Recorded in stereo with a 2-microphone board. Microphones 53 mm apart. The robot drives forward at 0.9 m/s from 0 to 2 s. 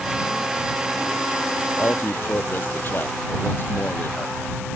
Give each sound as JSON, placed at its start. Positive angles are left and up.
{"t": 1.8, "sound": "a man speaking", "side_deg": 40}